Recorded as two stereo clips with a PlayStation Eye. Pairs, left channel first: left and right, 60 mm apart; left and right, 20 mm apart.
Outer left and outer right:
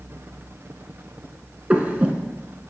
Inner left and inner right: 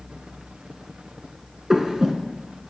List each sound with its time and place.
1.7 s breathing: 25° right (ahead or behind), 1.0 m